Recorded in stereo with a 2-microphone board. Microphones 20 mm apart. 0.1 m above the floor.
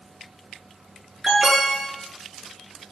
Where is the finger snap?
I don't hear a finger snap.